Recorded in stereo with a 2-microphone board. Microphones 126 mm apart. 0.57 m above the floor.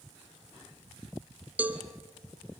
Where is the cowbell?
10° right (ahead or behind), 1.5 m.